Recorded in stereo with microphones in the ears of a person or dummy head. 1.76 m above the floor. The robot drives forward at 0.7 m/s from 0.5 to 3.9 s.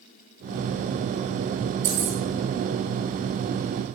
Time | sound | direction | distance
1.8 | keys jangling | 40° right (ahead or behind) | 1.2 m